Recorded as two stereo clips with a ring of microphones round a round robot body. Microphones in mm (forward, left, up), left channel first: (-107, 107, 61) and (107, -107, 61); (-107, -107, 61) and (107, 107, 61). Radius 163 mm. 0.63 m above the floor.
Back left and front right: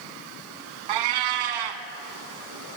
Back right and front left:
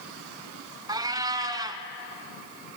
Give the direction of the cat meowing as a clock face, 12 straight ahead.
1 o'clock.